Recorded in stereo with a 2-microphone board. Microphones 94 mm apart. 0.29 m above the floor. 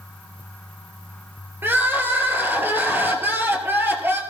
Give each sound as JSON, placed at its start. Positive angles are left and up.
{"t": 1.6, "sound": "crying", "side_deg": -25, "distance_m": 2.0}